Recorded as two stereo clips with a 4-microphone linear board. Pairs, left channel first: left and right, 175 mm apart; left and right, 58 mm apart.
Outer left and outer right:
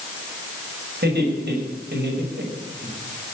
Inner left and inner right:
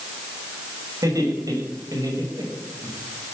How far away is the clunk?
No clunk in this recording.